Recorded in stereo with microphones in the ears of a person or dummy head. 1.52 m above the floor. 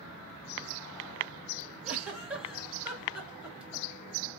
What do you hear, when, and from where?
1.8 s a giggle: 5° right (ahead or behind), 1.4 m